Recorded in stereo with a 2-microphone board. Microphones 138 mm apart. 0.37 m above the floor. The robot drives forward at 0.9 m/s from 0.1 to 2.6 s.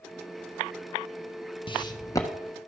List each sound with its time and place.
1.7 s footsteps: 35° left (ahead or behind), 0.7 m; by 2.3 s 20° left (ahead or behind), 1.2 m